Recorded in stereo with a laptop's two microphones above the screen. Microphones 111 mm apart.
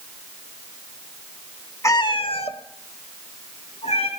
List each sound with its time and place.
1.8 s a cat meowing: 25° left (ahead or behind), 0.8 m; by 4.1 s 65° left (ahead or behind), 3 m